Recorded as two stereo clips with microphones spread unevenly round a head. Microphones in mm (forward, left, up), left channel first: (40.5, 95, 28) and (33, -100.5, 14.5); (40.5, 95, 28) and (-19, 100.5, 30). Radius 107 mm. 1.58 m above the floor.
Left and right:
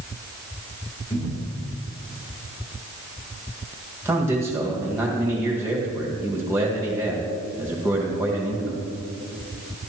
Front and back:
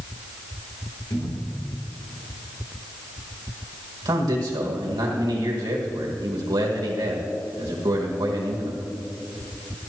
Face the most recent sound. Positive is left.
turn(degrees=-170)